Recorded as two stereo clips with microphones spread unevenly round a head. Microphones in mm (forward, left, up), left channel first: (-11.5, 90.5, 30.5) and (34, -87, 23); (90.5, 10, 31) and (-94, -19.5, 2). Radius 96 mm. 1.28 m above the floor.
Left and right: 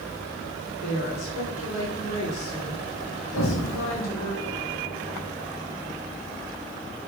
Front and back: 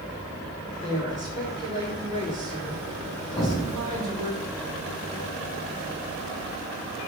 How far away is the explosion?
About 4.5 m.